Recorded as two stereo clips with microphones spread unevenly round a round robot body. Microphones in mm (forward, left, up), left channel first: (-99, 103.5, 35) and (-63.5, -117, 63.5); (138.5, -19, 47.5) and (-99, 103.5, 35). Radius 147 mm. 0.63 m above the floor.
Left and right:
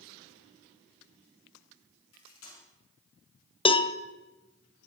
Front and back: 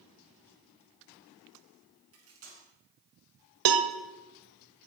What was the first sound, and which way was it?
Cutlery clinking, 115° left.